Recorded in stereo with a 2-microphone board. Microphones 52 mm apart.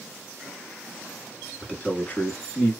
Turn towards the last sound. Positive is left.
turn(degrees=35)  # may be behind; listen again after turning